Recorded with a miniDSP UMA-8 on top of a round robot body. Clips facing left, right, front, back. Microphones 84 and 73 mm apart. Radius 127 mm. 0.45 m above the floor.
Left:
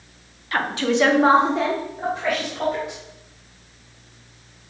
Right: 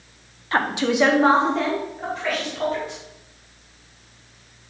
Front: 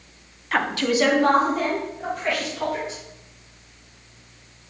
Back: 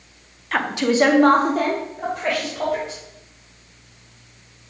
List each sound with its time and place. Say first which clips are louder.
0.5 s a woman speaking: right 1 dB, back 2 dB; 85° right, 1.0 m; by 3.0 s 160° left, 3.5 m